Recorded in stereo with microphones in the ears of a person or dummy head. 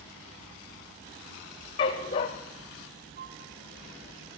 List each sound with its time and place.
1.8 s a dog barking: 20° left (ahead or behind), 0.8 m
3.2 s a flute: 50° right (ahead or behind), 1.1 m